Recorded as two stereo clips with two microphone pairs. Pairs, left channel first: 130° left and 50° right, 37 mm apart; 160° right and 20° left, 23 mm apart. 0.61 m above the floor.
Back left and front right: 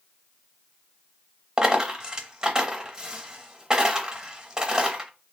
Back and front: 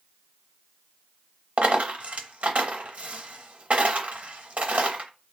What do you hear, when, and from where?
1.6 s a dropped coin: 15° left, 0.7 m